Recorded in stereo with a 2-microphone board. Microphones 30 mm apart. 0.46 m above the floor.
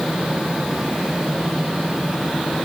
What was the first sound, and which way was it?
Only background noise.